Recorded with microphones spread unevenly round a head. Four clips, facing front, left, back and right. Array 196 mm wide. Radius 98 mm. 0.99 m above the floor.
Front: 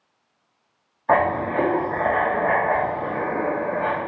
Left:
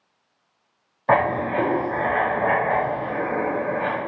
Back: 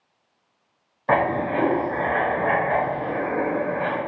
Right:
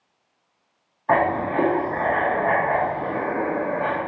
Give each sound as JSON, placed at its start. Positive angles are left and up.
{"t": 1.1, "sound": "writing", "azimuth_deg": 130, "distance_m": 1.3}